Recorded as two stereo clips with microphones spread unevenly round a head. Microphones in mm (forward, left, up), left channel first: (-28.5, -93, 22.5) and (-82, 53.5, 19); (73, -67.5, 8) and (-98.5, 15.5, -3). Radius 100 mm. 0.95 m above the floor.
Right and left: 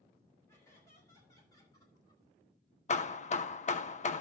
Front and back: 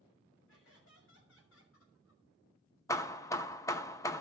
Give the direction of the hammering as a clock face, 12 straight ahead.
3 o'clock.